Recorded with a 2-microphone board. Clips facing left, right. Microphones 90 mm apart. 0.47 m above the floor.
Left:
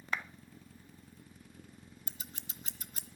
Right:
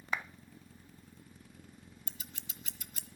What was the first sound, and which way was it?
A clap, 10° right (ahead or behind).